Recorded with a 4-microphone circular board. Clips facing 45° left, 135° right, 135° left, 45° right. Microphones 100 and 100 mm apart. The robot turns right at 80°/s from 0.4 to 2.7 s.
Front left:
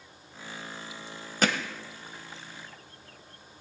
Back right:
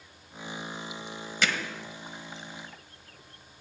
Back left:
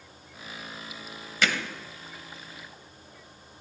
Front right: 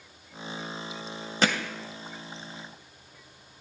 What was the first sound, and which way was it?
Hammering, straight ahead.